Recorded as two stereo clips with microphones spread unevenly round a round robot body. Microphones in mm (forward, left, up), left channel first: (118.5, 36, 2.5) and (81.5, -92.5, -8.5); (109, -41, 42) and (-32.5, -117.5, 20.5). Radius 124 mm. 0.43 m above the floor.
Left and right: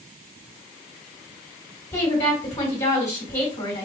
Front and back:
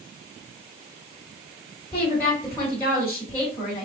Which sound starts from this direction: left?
A woman speaking, at 1.9 s.